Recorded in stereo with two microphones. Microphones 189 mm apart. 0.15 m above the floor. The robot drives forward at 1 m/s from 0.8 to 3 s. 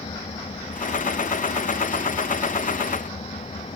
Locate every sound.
0.0 s an engine running: 30° left (ahead or behind)